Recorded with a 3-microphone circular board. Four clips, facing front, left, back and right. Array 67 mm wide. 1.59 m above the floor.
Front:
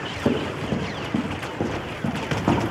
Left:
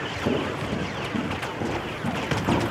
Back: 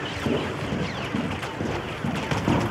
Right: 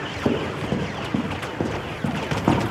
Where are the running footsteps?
50° right, 3 m; by 2.7 s 75° right, 4 m.